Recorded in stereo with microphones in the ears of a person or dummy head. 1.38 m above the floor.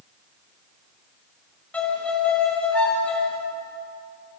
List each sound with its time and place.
1.7 s a violin: 10° left (ahead or behind), 0.9 m